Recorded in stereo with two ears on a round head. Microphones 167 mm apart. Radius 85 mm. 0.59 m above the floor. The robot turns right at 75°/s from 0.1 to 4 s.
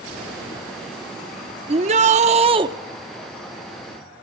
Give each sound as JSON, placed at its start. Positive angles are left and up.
{"t": 1.7, "sound": "a shout", "azimuth_deg": -115, "distance_m": 0.7}